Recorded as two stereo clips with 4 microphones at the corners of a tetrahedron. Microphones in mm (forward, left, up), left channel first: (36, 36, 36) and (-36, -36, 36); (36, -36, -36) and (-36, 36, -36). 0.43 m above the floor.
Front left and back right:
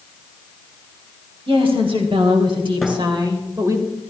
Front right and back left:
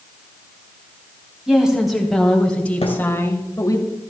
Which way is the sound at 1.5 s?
145° right.